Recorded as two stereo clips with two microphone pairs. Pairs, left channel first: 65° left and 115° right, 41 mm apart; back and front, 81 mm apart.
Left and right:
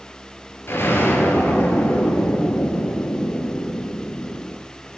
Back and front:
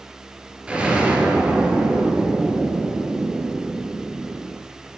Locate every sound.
0.7 s an explosion: 75° left, 4 m